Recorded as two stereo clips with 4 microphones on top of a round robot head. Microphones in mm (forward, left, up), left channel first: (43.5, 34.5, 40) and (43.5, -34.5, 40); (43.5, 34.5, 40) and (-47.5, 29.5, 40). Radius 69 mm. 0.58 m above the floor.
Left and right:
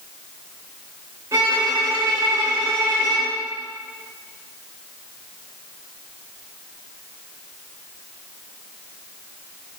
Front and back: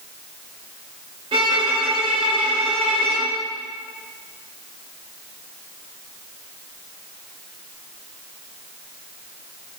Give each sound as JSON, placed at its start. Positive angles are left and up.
{"t": 1.3, "sound": "a violin", "azimuth_deg": -140, "distance_m": 2.5}